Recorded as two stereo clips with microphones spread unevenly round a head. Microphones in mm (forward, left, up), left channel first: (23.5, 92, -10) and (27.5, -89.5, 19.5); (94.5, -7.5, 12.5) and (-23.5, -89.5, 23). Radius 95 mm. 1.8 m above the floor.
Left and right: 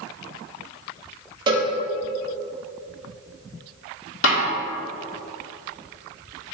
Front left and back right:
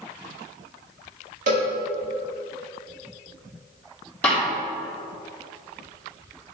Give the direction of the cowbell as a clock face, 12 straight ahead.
5 o'clock.